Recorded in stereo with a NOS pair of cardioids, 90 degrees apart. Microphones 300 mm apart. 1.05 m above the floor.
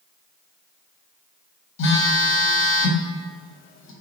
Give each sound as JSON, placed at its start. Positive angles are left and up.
{"t": 1.8, "sound": "a phone buzzing", "azimuth_deg": 65, "distance_m": 1.1}